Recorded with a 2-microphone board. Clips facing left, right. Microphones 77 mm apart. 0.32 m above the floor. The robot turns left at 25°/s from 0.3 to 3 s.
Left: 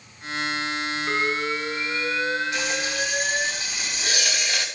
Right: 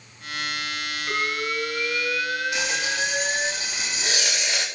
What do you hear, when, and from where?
1.1 s an alarm: 30° left, 8.5 m; by 3.5 s 20° right, 8.5 m
2.5 s frying: 15° right (ahead or behind), 9 m; by 4.7 s 30° right (ahead or behind), 9 m